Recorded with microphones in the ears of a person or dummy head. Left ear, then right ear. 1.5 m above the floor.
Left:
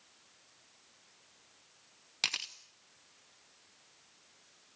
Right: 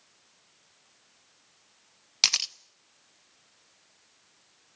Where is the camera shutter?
25° right (ahead or behind), 0.6 m.